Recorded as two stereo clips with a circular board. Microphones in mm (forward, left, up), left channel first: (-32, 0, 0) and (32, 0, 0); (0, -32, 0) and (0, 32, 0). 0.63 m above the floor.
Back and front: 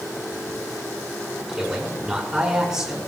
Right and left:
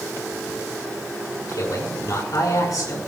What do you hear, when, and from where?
1.5 s a man speaking: 80° right, 6.5 m